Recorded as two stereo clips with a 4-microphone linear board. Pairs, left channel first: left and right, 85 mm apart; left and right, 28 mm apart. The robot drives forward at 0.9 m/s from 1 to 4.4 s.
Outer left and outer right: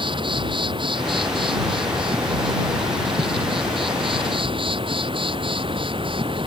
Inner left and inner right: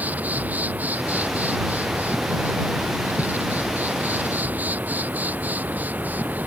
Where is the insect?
75° right (ahead or behind); by 6.5 s 85° right.